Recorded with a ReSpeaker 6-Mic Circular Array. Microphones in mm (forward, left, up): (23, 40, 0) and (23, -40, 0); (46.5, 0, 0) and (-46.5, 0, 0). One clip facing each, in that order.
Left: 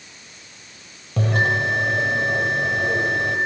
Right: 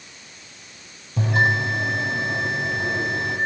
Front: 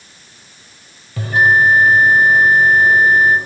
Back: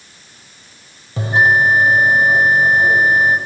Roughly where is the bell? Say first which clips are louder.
Even, front 1 dB; behind left.